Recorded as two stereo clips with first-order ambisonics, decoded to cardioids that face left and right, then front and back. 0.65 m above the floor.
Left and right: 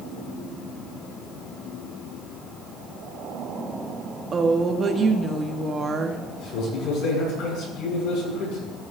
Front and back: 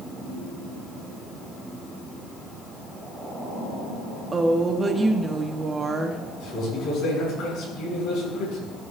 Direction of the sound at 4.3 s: 130° right.